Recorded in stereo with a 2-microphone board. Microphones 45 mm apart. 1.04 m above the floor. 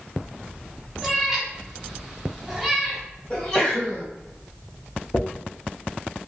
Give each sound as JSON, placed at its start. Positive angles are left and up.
{"t": 1.0, "sound": "a cat meowing", "side_deg": -5, "distance_m": 0.9}
{"t": 3.3, "sound": "a sneeze", "side_deg": 15, "distance_m": 1.5}
{"t": 5.1, "sound": "a dropped coin", "side_deg": 40, "distance_m": 0.5}